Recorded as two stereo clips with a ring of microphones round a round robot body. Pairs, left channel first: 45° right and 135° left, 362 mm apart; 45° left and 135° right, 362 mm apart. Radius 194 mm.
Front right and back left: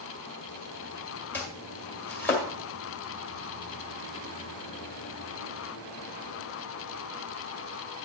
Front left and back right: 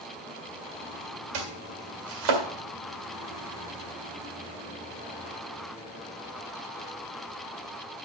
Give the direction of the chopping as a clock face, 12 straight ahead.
4 o'clock.